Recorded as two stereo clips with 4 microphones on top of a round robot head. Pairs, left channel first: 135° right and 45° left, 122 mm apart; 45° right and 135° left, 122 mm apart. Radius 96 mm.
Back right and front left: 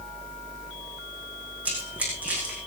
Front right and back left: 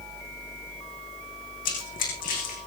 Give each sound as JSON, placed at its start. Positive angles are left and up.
{"t": 1.6, "sound": "running footsteps", "azimuth_deg": -35, "distance_m": 6.5}